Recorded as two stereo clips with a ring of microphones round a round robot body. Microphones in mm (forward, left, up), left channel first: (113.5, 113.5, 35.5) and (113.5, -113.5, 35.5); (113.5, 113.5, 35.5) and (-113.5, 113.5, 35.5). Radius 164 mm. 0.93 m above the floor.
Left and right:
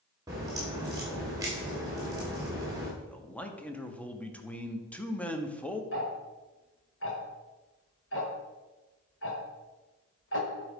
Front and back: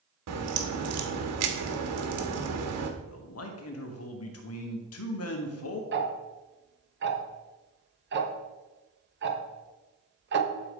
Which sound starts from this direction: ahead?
A man speaking, at 3.0 s.